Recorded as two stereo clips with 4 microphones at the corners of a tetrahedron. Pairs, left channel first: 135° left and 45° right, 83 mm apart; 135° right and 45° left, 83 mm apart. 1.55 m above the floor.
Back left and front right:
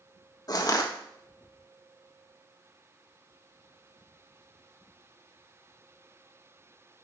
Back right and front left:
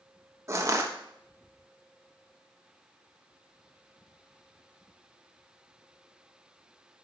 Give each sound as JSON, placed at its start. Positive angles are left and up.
{"t": 0.5, "sound": "crushing", "azimuth_deg": 95, "distance_m": 1.2}